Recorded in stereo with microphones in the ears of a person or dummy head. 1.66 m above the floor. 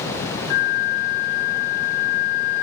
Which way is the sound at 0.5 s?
55° left (ahead or behind).